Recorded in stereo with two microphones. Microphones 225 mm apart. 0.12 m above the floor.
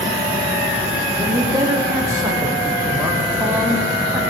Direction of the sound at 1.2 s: 15° right (ahead or behind).